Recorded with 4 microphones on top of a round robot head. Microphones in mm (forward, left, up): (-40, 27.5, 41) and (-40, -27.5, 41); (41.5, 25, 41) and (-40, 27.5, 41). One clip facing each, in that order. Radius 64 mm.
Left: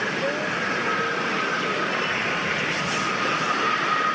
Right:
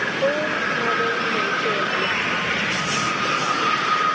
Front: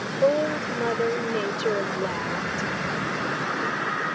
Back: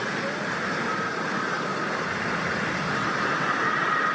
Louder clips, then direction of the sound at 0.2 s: Right 4 dB, front 7 dB; 25° right.